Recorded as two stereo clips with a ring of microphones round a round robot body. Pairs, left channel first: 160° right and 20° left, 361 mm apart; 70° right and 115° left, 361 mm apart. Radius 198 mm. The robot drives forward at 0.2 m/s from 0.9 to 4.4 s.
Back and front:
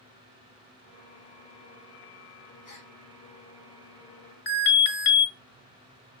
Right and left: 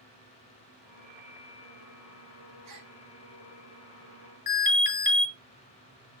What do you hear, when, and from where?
2.6 s a gasp: 160° left, 5 m
4.5 s an alarm: 140° right, 5 m